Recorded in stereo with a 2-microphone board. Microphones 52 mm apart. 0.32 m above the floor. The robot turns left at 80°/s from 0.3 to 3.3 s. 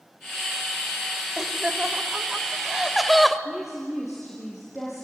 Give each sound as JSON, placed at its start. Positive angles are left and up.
{"t": 1.4, "sound": "laughter", "side_deg": -15, "distance_m": 1.3}
{"t": 3.5, "sound": "a woman speaking", "side_deg": -5, "distance_m": 6.5}